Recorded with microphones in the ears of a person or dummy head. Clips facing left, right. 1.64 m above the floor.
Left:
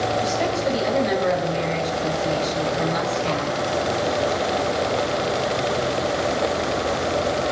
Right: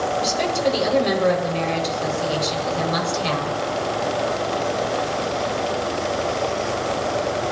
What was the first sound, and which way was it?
A woman speaking, 80° right.